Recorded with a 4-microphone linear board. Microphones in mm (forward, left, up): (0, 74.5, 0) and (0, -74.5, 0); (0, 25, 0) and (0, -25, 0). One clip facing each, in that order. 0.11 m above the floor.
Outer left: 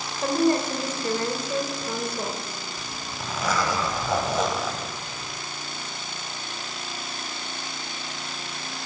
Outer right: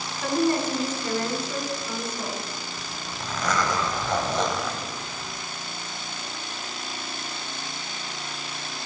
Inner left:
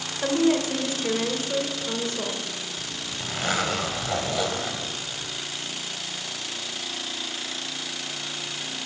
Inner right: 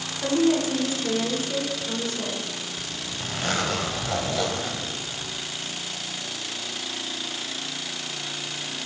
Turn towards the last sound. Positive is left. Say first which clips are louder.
# even, even
turn(degrees=5)  # may be behind; listen again after turning